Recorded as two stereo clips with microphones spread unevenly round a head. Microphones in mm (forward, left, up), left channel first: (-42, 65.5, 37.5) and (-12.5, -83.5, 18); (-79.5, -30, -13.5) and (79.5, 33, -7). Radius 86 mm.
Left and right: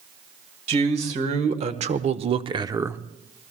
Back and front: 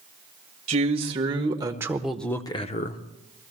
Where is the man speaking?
35° right, 1.8 m; by 3.0 s 150° right, 0.9 m.